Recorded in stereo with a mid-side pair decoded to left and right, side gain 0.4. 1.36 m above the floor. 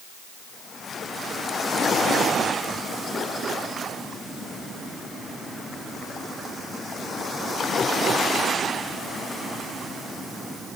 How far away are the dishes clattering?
I don't hear dishes clattering.